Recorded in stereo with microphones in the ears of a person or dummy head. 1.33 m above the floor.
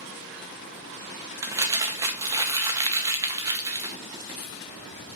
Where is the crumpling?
15° right (ahead or behind), 0.6 m.